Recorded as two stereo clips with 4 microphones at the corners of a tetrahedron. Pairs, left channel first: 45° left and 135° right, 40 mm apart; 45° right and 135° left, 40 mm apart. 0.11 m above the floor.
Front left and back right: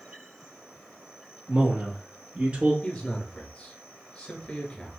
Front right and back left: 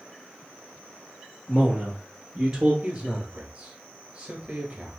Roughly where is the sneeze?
No sneeze in this recording.